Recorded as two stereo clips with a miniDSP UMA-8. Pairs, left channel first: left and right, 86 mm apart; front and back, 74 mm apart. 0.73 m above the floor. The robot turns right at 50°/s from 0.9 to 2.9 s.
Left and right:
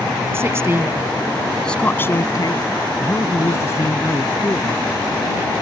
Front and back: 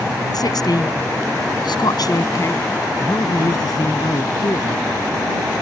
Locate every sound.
0.3 s a woman speaking: 30° right; by 2.6 s 60° left
3.0 s a man speaking: 30° left